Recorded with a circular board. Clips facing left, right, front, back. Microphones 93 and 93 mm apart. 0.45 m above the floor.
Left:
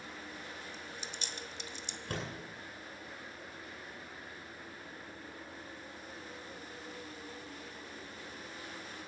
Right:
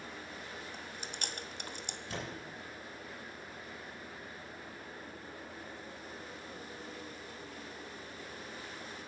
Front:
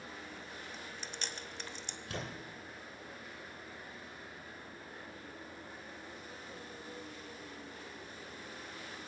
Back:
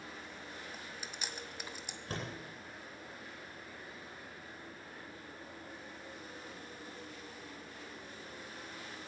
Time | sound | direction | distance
0.7 | chewing | 100° right | 1.0 m
2.1 | a door slam | 130° left | 10 m